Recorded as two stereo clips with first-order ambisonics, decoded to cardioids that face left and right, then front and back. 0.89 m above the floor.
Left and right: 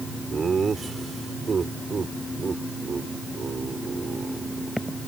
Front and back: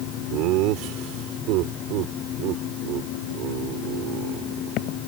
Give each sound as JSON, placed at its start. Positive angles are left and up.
{"t": 0.3, "sound": "laughter", "azimuth_deg": -160}